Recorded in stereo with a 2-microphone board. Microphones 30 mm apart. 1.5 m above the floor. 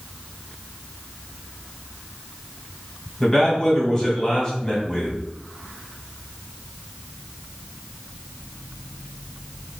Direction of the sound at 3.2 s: 20° left (ahead or behind).